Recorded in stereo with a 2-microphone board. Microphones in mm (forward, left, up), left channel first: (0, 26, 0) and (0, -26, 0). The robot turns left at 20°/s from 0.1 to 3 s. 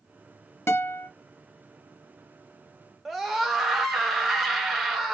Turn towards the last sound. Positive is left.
turn(degrees=-5)  # may be behind; listen again after turning